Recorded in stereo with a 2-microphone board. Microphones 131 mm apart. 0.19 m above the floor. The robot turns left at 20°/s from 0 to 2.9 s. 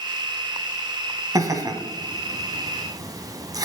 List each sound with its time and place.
1.4 s laughter: 25° right (ahead or behind), 1.1 m